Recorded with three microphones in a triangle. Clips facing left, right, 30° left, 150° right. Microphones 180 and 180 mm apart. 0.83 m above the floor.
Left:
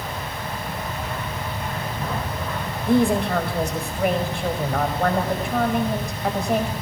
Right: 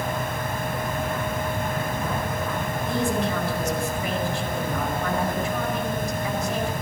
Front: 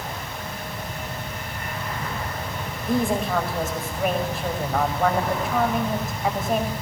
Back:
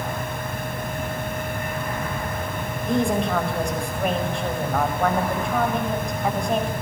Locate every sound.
2.9 s a woman speaking: 115° left, 5 m